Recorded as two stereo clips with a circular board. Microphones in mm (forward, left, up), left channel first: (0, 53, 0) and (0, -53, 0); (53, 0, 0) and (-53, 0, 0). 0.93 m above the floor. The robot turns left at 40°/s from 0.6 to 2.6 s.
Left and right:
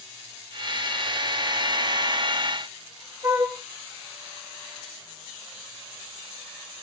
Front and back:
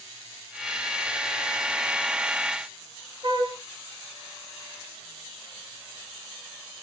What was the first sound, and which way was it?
A flute, 150° right.